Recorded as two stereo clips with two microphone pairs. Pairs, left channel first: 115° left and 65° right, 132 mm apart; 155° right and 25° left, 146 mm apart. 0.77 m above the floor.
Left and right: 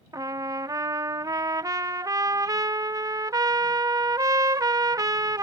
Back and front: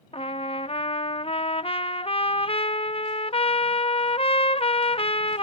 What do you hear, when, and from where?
0.1 s a trumpet: 120° right